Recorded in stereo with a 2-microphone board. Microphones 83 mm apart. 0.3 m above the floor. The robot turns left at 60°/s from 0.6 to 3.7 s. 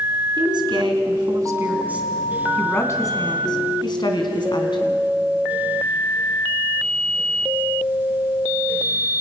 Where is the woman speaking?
80° right, 3 m; by 5.1 s 95° left, 3 m.